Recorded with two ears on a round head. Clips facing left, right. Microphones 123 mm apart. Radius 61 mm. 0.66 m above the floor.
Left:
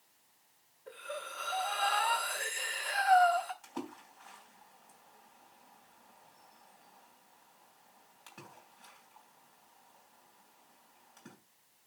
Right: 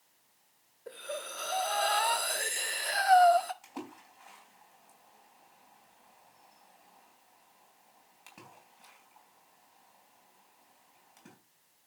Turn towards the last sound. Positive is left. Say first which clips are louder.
# left 1 dB
turn(degrees=-10)  # may be behind; listen again after turning